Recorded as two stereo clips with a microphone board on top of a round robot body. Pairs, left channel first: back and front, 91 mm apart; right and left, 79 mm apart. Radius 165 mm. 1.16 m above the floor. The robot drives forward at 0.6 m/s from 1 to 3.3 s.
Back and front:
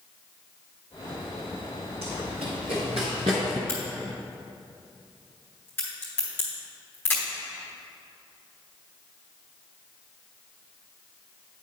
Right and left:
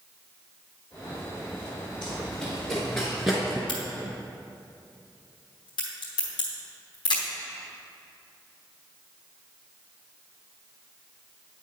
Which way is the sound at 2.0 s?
10° right.